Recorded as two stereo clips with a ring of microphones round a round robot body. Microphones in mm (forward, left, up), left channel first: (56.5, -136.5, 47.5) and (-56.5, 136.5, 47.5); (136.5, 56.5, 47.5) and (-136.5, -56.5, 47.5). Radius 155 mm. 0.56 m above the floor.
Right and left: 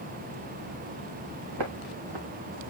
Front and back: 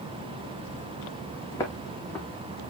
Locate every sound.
1.5 s footsteps: 100° left, 3 m; by 2.6 s 110° left, 3.5 m